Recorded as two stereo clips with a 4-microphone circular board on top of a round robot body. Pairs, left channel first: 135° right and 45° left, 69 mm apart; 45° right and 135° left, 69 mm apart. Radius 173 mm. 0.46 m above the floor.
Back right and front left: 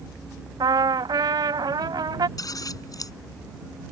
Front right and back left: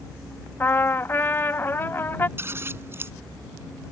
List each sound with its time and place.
0.6 s a trumpet: 20° left
2.4 s scissors: 170° right